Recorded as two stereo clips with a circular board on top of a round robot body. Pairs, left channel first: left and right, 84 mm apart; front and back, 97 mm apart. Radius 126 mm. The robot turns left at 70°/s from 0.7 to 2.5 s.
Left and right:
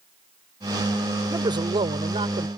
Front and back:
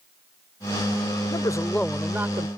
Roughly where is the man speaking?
Ahead right.